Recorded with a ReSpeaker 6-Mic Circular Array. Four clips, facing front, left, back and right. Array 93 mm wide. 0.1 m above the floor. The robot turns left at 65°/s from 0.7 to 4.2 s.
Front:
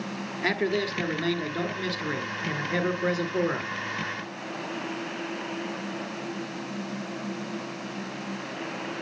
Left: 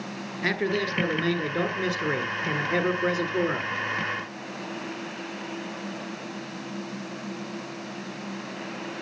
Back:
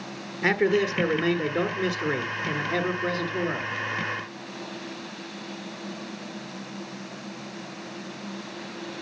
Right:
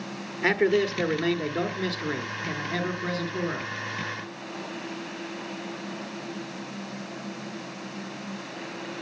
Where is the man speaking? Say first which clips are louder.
Right 5 dB, back 5 dB; 145° right, 1.1 m; by 3.7 s 20° left, 1.1 m.